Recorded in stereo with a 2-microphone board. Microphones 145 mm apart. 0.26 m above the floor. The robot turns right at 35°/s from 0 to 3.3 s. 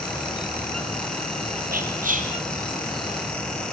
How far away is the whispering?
About 5.5 m.